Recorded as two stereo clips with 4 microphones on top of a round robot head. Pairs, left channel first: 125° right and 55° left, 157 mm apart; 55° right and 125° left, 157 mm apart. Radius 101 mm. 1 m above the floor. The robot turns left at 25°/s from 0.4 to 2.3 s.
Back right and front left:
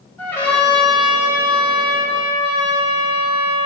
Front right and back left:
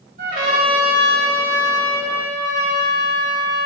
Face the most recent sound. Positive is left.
turn(degrees=110)